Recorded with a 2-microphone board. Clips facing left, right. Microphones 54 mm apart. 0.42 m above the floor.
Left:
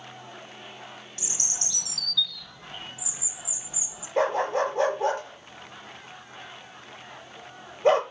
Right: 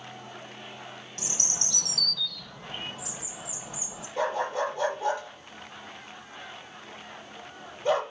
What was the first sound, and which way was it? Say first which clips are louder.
A bird: right 5 dB; 50° right (ahead or behind).